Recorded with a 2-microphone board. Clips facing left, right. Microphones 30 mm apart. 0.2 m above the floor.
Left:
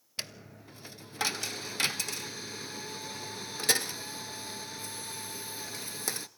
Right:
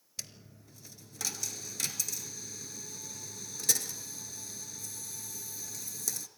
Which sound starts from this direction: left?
A dropped coin, at 0.2 s.